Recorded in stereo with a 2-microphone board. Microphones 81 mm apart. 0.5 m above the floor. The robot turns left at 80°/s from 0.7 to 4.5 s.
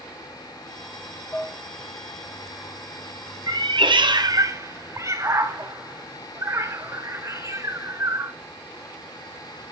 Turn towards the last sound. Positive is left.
turn(degrees=-35)  # may be behind; listen again after turning